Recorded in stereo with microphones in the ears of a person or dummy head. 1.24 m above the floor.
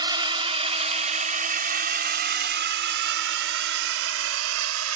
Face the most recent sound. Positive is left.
turn(degrees=-75)  # may be behind; listen again after turning